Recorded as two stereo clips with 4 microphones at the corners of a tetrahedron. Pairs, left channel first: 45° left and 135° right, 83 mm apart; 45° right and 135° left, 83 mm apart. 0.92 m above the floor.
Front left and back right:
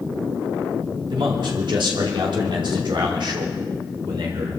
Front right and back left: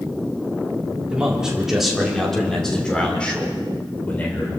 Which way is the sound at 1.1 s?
145° right.